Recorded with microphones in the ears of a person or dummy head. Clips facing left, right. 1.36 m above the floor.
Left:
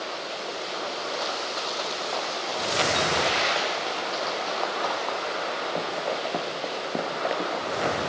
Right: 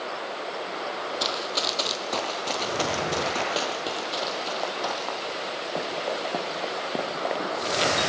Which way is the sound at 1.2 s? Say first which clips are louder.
Right 1 dB; 45° right (ahead or behind).